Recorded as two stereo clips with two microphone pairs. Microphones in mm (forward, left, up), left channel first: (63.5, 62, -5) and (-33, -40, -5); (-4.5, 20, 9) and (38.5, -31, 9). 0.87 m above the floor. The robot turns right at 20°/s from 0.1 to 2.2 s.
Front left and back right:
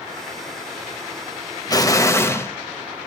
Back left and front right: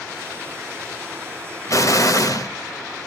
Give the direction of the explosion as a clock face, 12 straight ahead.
9 o'clock.